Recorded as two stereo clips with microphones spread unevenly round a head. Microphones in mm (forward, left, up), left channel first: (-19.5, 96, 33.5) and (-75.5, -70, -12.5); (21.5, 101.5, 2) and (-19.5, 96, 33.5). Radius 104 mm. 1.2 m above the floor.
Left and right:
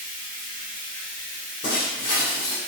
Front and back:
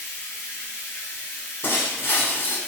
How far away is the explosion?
I don't hear an explosion.